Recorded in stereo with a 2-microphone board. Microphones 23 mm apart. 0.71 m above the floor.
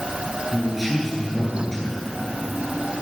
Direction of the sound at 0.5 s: Centre (ahead or behind).